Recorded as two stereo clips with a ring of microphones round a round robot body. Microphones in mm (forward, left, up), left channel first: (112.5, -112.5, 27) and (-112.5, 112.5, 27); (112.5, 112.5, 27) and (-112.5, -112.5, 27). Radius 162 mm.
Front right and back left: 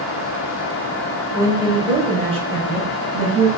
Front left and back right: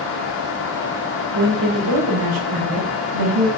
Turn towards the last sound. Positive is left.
turn(degrees=-155)